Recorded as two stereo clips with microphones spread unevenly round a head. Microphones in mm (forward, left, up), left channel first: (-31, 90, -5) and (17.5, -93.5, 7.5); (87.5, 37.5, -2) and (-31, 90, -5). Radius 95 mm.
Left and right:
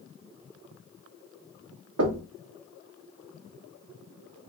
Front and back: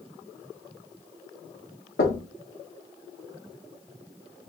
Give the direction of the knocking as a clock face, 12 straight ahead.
2 o'clock.